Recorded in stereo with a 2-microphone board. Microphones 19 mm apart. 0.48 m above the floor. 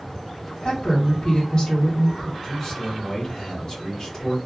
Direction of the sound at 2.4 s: 25° left (ahead or behind).